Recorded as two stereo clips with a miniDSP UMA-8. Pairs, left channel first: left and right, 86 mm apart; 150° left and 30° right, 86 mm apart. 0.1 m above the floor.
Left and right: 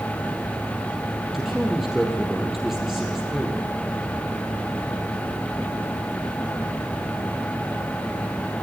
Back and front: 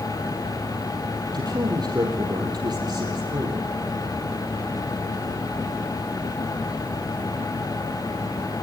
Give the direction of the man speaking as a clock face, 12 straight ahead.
12 o'clock.